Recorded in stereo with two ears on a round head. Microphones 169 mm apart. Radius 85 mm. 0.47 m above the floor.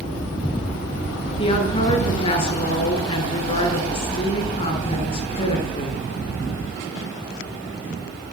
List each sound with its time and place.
1.4 s a woman speaking: 30° left (ahead or behind), 7.5 m